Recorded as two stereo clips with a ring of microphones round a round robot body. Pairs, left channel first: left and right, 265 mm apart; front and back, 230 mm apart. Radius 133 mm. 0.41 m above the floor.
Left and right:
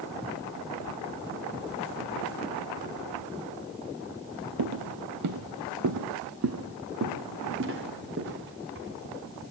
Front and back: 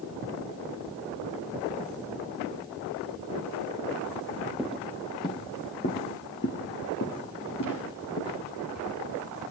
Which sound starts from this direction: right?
Footsteps, at 4.6 s.